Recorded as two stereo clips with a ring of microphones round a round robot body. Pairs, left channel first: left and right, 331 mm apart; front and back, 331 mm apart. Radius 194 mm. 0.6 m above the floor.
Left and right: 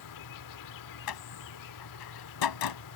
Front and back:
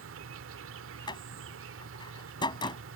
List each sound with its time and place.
0.0 s an insect: 125° left
1.1 s a door slam: 80° left